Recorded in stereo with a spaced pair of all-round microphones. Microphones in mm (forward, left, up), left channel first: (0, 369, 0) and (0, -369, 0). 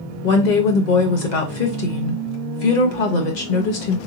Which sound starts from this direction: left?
A woman speaking, at 0.2 s.